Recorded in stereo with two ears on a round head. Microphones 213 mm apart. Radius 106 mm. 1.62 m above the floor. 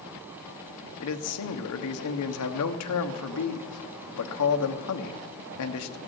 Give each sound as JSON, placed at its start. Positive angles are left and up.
{"t": 1.0, "sound": "a man speaking", "side_deg": 70, "distance_m": 1.2}